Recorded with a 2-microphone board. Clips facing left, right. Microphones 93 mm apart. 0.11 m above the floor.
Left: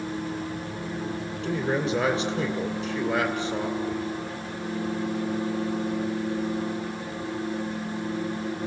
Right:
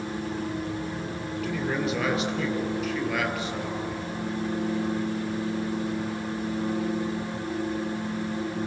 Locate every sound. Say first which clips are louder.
1.4 s a man speaking: left 2 dB; 30° left (ahead or behind), 2.5 m